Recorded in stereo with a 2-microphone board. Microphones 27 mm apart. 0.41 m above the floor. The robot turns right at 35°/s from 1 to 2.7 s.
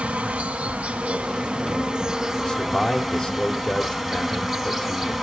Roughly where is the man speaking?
Left.